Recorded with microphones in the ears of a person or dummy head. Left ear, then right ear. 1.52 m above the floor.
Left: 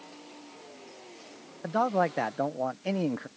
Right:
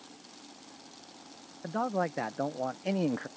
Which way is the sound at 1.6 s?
30° left (ahead or behind).